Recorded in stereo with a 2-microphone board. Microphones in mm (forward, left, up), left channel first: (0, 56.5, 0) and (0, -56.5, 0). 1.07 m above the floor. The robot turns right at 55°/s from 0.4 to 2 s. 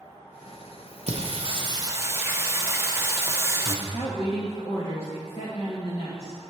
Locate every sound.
1.1 s singing: 75° right, 0.7 m; by 3.8 s 25° right, 0.7 m
3.9 s a woman speaking: 65° left (ahead or behind), 1.1 m